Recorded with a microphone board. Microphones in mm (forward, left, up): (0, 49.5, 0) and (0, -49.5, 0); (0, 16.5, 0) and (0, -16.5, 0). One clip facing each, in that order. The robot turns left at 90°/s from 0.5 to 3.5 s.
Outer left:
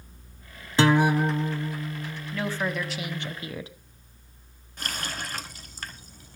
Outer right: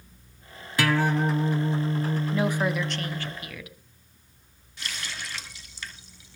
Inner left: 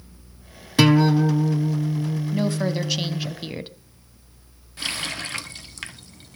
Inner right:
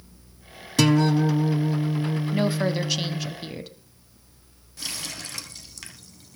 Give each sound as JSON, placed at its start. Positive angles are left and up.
{"t": 0.8, "sound": "a guitar", "azimuth_deg": 45, "distance_m": 0.8}
{"t": 2.3, "sound": "a woman speaking", "azimuth_deg": -135, "distance_m": 1.3}
{"t": 4.8, "sound": "a running tap", "side_deg": 45, "distance_m": 1.2}